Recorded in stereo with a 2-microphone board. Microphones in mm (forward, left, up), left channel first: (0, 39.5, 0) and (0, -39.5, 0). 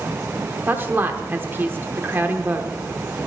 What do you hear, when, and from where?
0.7 s a woman speaking: 30° right (ahead or behind), 0.9 m